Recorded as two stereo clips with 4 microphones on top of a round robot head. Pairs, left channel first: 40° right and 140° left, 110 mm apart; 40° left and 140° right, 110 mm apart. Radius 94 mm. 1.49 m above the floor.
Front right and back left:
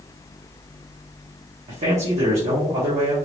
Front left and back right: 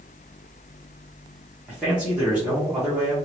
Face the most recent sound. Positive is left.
turn(degrees=140)